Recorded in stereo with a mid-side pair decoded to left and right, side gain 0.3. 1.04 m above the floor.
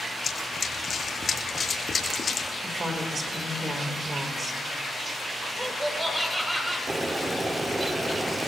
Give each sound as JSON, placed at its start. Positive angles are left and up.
{"t": 0.2, "sound": "running footsteps", "azimuth_deg": 55, "distance_m": 3.5}
{"t": 2.6, "sound": "a woman speaking", "azimuth_deg": -50, "distance_m": 3.5}
{"t": 5.5, "sound": "laughter", "azimuth_deg": -15, "distance_m": 6.5}
{"t": 6.9, "sound": "boiling", "azimuth_deg": -30, "distance_m": 1.7}